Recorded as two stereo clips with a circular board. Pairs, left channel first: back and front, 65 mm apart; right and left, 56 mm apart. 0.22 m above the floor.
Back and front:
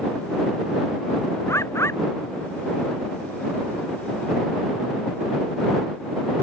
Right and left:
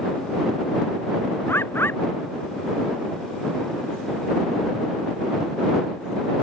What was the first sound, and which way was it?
A bird, 135° right.